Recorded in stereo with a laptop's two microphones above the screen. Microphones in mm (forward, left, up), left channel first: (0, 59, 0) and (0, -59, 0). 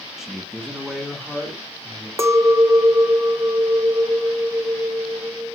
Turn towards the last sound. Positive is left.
turn(degrees=-25)  # may be behind; listen again after turning